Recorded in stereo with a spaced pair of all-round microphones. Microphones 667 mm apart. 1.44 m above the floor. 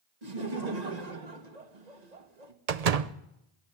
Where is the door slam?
65° right (ahead or behind), 0.8 m.